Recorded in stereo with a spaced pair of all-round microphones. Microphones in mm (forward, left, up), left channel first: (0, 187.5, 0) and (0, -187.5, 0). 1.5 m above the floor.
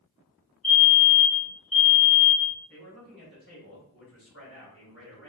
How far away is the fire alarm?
About 1.3 m.